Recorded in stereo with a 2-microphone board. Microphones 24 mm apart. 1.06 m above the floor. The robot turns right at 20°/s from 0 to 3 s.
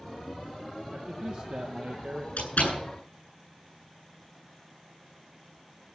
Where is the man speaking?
40° right (ahead or behind), 1.0 m; by 2.3 s 55° right (ahead or behind), 1.0 m.